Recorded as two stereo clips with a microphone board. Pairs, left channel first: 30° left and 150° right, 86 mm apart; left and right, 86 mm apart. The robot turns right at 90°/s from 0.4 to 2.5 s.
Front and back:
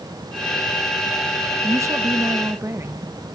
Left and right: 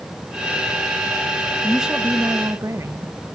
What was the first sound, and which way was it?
A woman speaking, 175° left.